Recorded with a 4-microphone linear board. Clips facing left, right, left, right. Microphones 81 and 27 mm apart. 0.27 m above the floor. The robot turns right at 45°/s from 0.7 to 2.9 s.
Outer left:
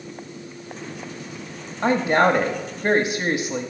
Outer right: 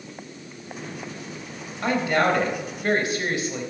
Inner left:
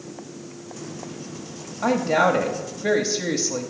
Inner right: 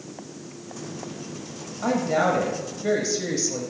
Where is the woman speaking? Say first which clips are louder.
Outer left 4 dB, inner left 3 dB; 25° left (ahead or behind), 0.9 m; by 3.7 s 20° left (ahead or behind), 0.9 m.